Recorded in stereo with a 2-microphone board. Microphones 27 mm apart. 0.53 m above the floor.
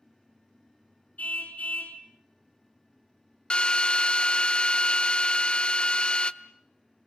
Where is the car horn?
65° left (ahead or behind), 2.5 m.